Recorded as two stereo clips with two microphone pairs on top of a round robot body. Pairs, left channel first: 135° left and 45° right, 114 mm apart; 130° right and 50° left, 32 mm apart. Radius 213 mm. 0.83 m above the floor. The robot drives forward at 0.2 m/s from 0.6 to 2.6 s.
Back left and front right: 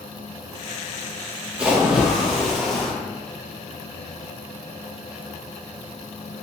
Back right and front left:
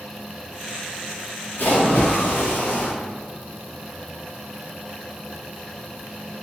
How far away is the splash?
About 1.1 m.